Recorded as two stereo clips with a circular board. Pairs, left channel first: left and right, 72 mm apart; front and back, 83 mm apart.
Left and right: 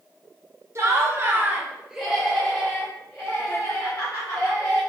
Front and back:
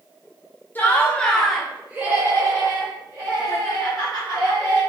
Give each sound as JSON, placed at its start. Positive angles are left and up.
{"t": 0.8, "sound": "laughter", "azimuth_deg": -60, "distance_m": 0.8}